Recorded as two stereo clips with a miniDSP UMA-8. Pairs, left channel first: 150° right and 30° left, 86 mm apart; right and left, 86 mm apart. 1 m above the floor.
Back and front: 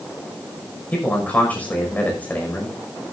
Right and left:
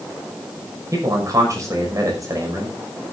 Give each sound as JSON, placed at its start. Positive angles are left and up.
{"t": 0.9, "sound": "a man speaking", "azimuth_deg": 140, "distance_m": 5.5}